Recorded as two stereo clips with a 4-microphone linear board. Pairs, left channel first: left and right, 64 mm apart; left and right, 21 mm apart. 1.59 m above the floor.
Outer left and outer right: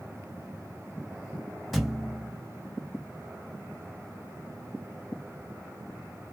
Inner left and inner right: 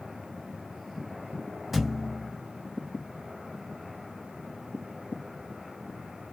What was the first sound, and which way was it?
A thud, 5° right (ahead or behind).